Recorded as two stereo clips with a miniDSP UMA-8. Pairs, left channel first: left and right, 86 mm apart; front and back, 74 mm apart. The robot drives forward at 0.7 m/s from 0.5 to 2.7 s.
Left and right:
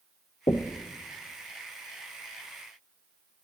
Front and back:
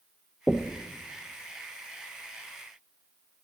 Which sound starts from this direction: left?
Knocking, at 0.5 s.